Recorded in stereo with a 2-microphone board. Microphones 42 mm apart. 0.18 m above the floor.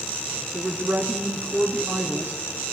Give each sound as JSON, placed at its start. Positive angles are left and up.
{"t": 0.5, "sound": "a woman speaking", "side_deg": -60, "distance_m": 3.0}